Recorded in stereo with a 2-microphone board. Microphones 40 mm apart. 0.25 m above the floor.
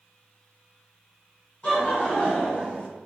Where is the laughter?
35° left (ahead or behind), 1.9 m.